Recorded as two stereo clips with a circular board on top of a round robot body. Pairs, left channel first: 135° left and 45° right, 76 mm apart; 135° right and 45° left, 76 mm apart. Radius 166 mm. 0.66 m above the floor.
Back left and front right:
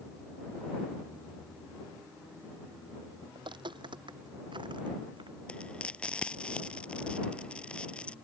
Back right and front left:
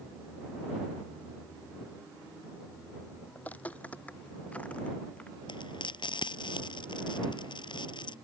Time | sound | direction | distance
3.4 | footsteps | 65° right | ?
5.5 | frying | 145° right | ?